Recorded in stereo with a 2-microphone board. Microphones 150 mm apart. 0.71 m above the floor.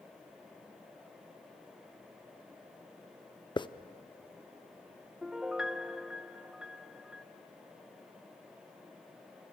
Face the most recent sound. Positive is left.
turn(degrees=-5)  # may be behind; listen again after turning